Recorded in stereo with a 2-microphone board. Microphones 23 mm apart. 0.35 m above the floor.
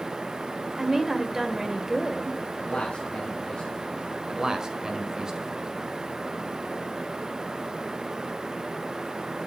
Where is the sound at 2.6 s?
45° left (ahead or behind), 2 m.